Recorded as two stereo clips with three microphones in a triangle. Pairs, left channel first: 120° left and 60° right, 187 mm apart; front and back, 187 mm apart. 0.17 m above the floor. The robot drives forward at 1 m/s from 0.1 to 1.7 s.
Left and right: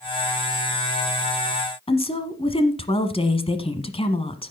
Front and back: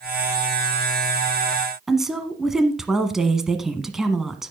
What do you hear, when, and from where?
1.9 s a woman speaking: 95° left, 1.2 m